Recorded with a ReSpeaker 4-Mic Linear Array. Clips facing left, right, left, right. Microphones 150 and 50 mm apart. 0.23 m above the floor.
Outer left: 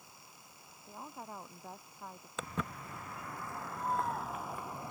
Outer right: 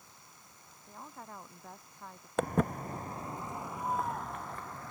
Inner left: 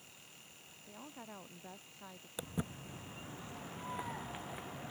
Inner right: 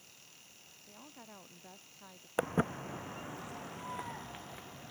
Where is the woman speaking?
10° left (ahead or behind).